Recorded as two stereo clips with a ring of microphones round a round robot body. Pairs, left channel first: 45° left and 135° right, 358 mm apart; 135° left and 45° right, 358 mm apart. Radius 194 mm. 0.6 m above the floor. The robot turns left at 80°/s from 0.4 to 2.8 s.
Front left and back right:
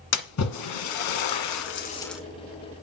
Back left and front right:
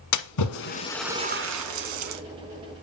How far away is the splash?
About 1.4 m.